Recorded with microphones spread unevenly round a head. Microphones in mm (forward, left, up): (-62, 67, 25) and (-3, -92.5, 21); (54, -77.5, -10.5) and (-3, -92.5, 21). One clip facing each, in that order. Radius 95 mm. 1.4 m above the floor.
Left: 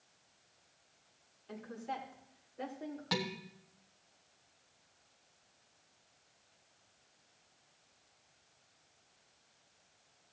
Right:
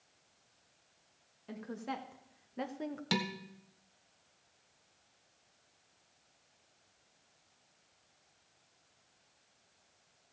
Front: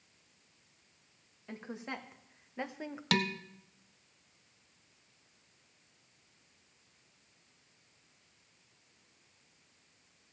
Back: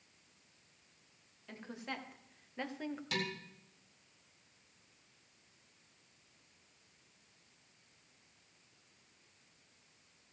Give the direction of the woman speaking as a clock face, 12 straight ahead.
2 o'clock.